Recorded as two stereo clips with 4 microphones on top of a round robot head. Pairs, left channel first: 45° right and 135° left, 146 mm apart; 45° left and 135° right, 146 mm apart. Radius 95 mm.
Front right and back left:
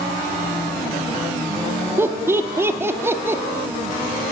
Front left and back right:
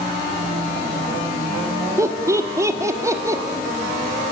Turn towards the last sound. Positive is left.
turn(degrees=-175)